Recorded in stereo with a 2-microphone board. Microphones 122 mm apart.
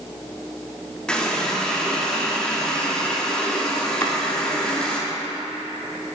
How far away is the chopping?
About 0.7 m.